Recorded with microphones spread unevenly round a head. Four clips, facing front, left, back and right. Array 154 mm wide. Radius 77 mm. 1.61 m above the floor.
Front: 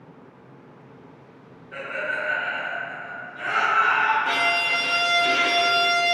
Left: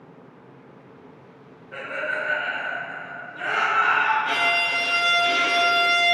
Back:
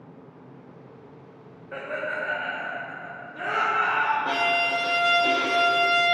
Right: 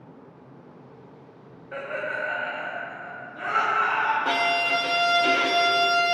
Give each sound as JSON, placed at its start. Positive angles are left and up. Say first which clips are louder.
{"t": 1.7, "sound": "laughter", "louder": "left 1 dB, front 1 dB", "azimuth_deg": -145, "distance_m": 1.2}
{"t": 4.2, "sound": "a violin", "louder": "even, even", "azimuth_deg": -115, "distance_m": 0.7}